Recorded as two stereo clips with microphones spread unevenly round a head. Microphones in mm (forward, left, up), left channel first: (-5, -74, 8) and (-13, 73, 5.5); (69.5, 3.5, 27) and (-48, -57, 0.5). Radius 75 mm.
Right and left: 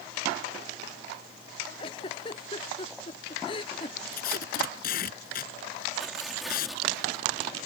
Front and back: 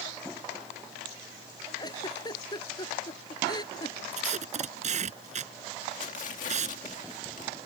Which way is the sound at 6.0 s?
5° left.